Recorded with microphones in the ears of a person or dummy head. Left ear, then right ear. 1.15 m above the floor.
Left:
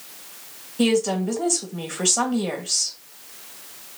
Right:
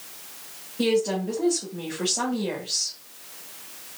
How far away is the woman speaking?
About 1.6 m.